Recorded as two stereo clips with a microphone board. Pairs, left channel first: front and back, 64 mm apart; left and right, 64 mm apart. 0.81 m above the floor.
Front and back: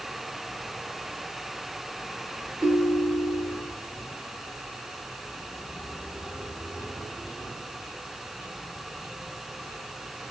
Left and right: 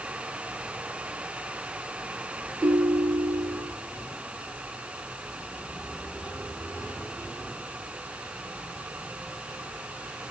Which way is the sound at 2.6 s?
150° right.